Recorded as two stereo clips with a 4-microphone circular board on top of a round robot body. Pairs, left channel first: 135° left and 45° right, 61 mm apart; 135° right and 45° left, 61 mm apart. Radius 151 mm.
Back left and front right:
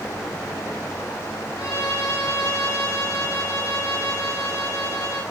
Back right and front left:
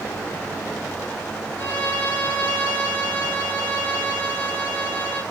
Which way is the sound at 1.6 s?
165° left.